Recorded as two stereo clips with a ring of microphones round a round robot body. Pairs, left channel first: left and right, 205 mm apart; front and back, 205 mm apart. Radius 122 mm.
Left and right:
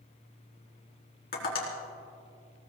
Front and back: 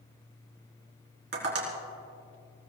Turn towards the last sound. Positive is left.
turn(degrees=140)